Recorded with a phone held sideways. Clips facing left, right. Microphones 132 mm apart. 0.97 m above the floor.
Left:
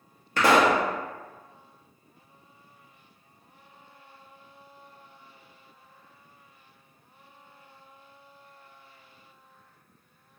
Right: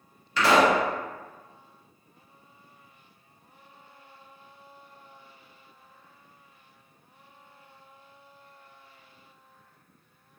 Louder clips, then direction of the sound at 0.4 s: Even; 50° left (ahead or behind).